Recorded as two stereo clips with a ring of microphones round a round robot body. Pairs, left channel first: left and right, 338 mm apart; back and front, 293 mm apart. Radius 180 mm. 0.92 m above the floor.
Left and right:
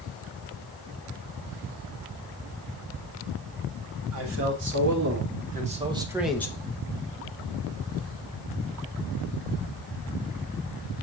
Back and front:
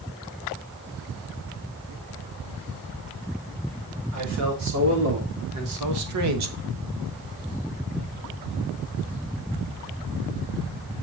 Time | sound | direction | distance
4.1 | a man speaking | 40° right | 4 m